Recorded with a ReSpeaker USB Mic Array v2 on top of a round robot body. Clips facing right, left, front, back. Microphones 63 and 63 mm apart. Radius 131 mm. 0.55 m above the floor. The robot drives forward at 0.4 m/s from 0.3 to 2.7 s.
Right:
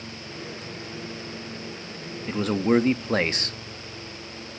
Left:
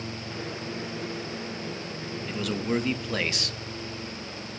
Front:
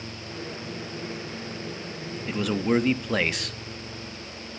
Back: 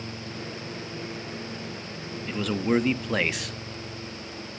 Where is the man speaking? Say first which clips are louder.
Right 7 dB, front 1 dB; 80° right, 1.3 m; by 3.6 s 95° right, 1.3 m.